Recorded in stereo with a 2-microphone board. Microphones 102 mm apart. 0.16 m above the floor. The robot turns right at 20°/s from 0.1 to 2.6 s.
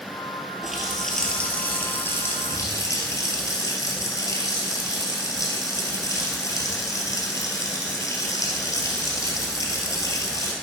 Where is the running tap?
5° right, 2 m; by 10.5 s 35° left, 2 m.